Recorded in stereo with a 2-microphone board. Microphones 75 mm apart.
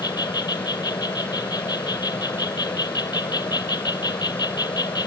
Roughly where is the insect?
Left.